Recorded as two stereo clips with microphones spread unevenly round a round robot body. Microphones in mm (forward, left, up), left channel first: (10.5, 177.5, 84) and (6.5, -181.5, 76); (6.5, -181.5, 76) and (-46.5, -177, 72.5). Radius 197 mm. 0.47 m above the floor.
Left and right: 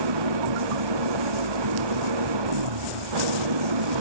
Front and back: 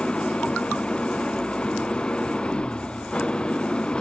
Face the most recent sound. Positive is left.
turn(degrees=-75)